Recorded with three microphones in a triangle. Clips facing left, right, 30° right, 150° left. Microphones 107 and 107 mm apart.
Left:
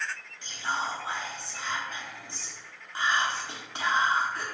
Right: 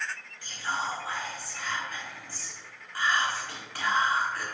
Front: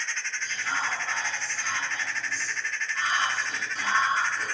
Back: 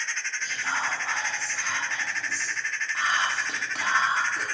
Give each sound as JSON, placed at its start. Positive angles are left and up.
{"t": 0.4, "sound": "whispering", "azimuth_deg": 155, "distance_m": 0.5}